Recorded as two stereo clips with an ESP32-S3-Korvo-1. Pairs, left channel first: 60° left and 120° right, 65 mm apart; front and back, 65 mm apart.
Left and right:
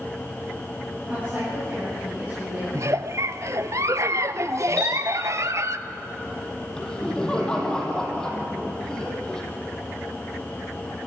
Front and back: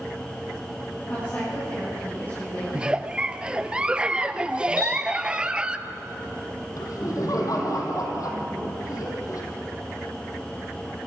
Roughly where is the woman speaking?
Ahead right.